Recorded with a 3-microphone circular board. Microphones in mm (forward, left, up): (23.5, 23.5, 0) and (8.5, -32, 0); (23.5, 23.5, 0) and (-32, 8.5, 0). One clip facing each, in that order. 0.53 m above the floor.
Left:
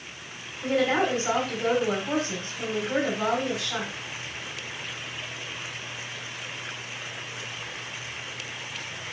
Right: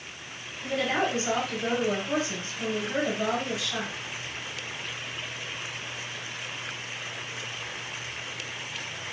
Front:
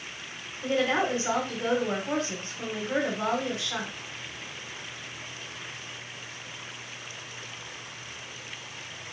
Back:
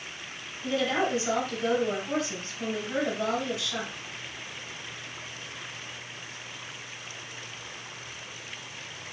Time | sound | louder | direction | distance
0.6 | a woman speaking | left 4 dB, front 1 dB | 45° left | 1.8 m